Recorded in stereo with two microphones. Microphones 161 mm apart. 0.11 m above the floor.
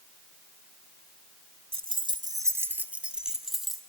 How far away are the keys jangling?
About 1.0 m.